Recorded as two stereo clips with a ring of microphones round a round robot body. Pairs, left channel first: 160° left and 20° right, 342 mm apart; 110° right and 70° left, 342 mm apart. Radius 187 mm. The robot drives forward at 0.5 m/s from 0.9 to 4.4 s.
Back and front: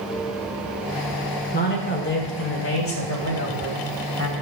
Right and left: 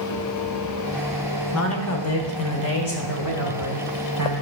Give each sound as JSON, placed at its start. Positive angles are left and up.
{"t": 1.5, "sound": "a man speaking", "azimuth_deg": -145, "distance_m": 1.7}